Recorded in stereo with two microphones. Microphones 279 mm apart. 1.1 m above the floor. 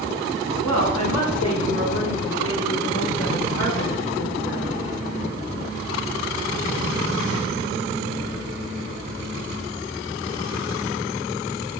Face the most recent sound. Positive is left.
turn(degrees=50)  # may be behind; listen again after turning